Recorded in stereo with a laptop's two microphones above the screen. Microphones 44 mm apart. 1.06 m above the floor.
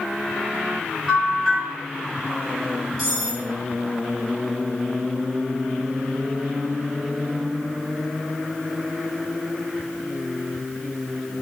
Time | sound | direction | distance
1.1 | a bell | 5° left (ahead or behind) | 1.0 m
3.0 | cutlery clinking | 10° left (ahead or behind) | 1.3 m